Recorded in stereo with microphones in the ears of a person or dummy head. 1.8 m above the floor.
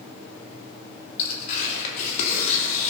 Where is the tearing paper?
45° left (ahead or behind), 3 m.